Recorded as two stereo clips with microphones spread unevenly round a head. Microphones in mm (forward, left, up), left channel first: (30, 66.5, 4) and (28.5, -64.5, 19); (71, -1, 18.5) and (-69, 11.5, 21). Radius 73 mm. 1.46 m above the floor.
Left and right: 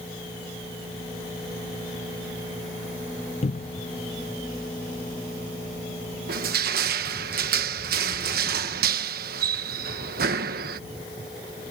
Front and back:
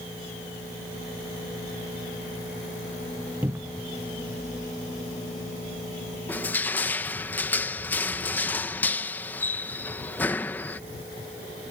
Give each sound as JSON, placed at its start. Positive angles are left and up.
{"t": 3.4, "sound": "a cupboard door", "azimuth_deg": 100}
{"t": 6.3, "sound": "crushing", "azimuth_deg": -85}